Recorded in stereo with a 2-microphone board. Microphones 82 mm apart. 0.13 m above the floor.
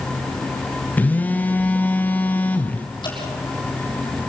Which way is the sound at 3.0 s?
60° left (ahead or behind).